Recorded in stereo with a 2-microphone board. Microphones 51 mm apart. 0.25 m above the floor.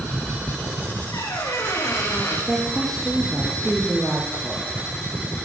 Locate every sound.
1.1 s a squeak: 80° left, 9.5 m
2.5 s a woman speaking: 5° left (ahead or behind), 7.5 m